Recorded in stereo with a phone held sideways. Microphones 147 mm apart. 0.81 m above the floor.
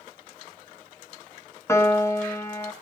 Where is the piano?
15° left (ahead or behind), 1.0 m.